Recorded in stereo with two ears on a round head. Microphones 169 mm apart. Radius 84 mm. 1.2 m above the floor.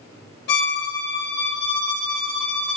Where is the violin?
60° left (ahead or behind), 0.7 m.